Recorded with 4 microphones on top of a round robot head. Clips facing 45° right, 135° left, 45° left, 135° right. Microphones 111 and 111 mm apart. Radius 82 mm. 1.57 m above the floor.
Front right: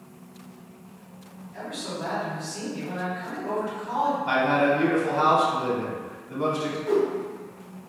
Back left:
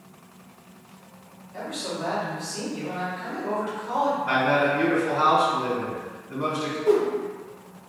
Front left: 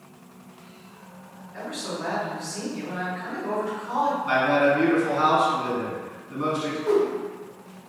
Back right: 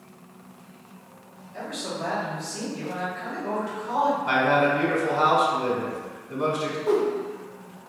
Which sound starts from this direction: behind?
A man speaking, at 1.5 s.